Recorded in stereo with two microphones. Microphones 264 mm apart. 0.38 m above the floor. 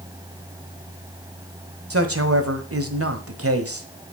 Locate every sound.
1.9 s a man speaking: 60° right (ahead or behind), 1.5 m